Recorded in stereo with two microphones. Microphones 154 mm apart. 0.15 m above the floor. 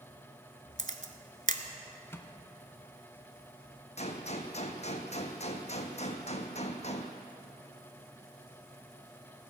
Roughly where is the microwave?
Centre.